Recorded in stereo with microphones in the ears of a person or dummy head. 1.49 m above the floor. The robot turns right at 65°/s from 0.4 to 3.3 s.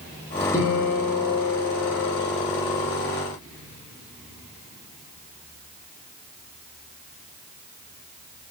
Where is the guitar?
15° left, 0.8 m; by 2.9 s 170° left, 0.8 m.